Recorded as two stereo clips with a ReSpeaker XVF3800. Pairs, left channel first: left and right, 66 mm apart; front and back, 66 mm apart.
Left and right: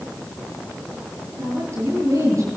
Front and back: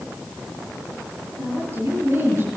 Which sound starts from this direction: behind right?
A woman speaking, at 1.4 s.